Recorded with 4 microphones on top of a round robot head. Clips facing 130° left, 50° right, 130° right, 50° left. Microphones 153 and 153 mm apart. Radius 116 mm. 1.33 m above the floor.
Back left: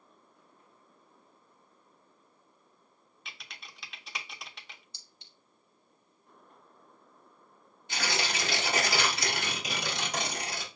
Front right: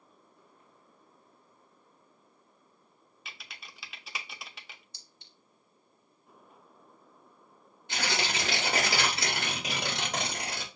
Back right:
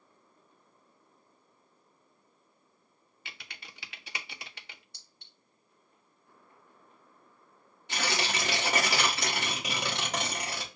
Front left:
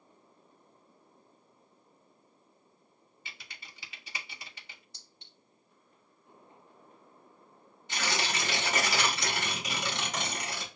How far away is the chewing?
No chewing in this recording.